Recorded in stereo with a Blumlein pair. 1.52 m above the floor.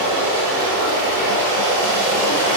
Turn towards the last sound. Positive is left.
turn(degrees=-60)